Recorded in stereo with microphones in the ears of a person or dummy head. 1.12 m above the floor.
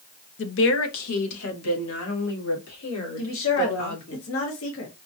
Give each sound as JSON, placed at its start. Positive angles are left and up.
{"t": 0.4, "sound": "a woman speaking", "side_deg": 50, "distance_m": 0.6}
{"t": 3.2, "sound": "a woman speaking", "side_deg": 65, "distance_m": 1.0}